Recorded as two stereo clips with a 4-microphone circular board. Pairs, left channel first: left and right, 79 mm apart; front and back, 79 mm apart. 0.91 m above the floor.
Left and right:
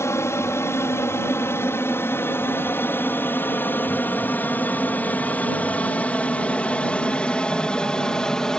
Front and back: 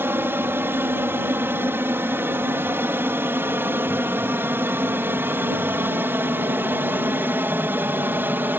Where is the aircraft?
130° left; by 8.6 s 160° left.